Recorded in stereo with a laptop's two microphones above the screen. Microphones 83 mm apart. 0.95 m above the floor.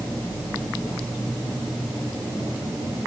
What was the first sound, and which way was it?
Only background noise.